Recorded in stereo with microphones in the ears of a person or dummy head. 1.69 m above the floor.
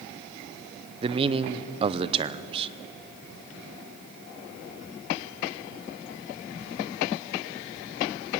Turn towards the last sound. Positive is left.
turn(degrees=-30)  # may be behind; listen again after turning